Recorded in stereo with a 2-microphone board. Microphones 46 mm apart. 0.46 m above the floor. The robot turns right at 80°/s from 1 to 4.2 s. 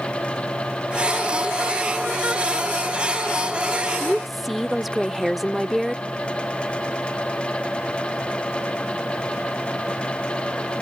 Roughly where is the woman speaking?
Centre.